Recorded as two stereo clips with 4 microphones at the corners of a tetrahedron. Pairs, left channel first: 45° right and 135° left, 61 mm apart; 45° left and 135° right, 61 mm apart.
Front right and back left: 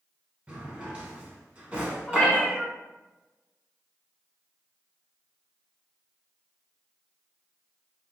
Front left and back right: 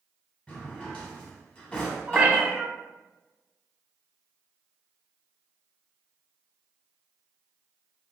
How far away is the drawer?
About 0.8 m.